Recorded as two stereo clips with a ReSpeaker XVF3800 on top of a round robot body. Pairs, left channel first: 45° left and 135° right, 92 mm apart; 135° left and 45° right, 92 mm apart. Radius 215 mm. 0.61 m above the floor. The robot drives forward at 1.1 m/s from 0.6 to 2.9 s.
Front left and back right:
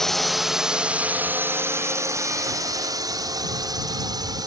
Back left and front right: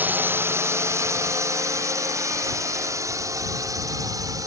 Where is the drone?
30° right; by 4.5 s 95° right.